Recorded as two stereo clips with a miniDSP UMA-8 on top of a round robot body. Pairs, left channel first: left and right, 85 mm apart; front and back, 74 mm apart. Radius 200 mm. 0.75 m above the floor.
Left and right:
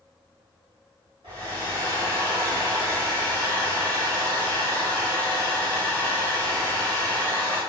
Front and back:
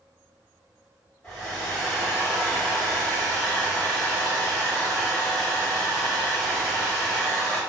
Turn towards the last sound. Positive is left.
turn(degrees=-75)